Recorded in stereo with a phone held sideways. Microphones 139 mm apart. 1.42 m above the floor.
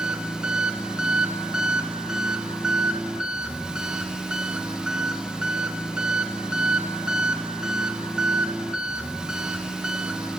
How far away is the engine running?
About 1.0 m.